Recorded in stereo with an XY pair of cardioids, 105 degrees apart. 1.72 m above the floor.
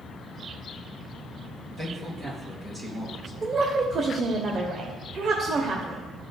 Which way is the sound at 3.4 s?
45° right.